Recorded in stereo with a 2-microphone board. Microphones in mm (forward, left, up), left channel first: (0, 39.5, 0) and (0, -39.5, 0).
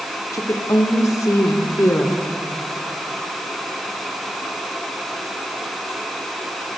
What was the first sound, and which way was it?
A woman speaking, 45° left (ahead or behind).